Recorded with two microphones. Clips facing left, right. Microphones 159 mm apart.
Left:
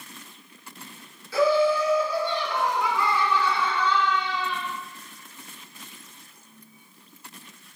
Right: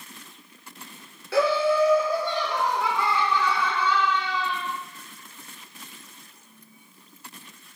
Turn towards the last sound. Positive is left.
turn(degrees=0)  # may be behind; listen again after turning